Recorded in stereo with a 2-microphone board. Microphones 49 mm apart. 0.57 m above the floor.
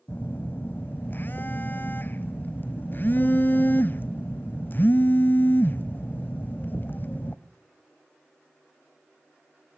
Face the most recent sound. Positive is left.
turn(degrees=45)  # may be behind; listen again after turning